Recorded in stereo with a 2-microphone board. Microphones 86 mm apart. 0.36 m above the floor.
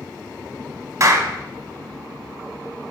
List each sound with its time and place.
1.0 s a clap: 40° right (ahead or behind), 0.9 m